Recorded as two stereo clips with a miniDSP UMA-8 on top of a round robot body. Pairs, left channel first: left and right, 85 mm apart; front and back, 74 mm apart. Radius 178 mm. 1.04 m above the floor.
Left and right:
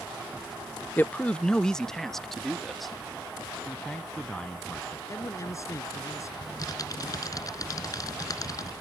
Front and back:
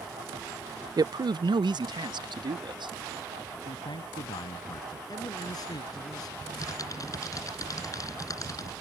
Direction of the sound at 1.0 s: 160° left.